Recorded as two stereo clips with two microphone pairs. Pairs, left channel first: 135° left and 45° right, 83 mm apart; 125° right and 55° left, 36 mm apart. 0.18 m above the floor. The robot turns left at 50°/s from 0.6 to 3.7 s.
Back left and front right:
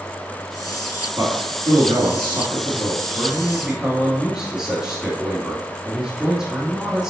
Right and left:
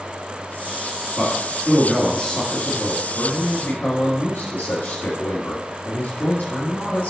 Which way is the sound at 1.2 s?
5° left.